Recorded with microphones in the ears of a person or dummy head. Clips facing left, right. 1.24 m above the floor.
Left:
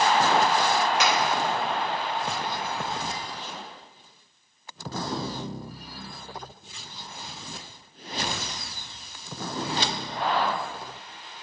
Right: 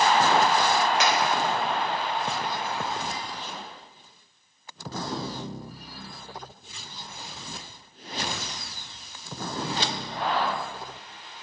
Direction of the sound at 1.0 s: 85° left.